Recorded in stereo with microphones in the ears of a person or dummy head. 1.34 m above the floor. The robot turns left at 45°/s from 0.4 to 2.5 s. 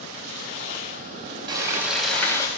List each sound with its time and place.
1.5 s frying: 155° right, 0.9 m; by 2.5 s 160° left, 0.9 m